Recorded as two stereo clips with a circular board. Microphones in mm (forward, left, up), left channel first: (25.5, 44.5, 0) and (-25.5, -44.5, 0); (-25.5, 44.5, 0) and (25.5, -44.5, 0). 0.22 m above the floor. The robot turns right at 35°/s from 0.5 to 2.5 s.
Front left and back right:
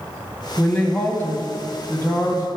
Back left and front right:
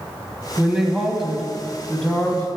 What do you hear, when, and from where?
0.6 s a woman speaking: straight ahead, 1.2 m; by 2.5 s 70° left, 1.2 m